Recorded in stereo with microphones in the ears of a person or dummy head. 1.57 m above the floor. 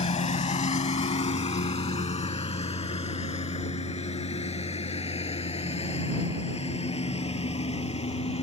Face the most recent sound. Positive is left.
turn(degrees=25)  # may be behind; listen again after turning